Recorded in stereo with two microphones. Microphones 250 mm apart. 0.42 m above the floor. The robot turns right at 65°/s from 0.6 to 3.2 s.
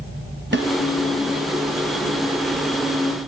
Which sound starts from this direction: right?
A snare drum, at 0.5 s.